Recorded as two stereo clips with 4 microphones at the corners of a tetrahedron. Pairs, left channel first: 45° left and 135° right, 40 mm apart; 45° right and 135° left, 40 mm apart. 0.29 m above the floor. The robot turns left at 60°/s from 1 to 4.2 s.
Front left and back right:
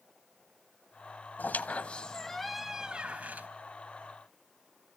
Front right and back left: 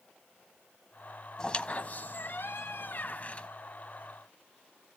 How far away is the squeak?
About 1.0 m.